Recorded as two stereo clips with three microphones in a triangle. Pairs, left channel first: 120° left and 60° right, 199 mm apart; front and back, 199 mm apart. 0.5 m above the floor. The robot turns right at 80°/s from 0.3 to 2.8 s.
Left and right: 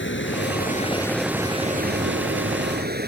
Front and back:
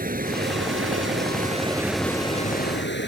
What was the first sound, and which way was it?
Running water, 135° left.